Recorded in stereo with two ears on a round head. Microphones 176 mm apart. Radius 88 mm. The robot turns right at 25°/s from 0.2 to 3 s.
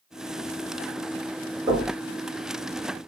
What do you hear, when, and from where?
1.7 s knocking: 25° right (ahead or behind), 1.3 m; by 1.9 s 20° right (ahead or behind), 1.3 m